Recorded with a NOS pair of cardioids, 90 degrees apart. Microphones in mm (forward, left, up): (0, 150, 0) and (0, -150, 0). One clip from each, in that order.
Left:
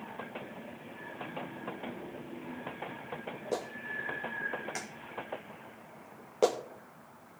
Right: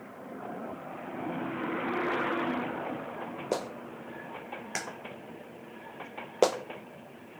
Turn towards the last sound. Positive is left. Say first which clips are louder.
# right 1 dB
turn(degrees=-40)